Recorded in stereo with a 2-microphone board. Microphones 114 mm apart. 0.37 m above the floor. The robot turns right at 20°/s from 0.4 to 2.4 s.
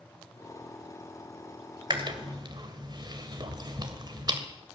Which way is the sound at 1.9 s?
45° right (ahead or behind).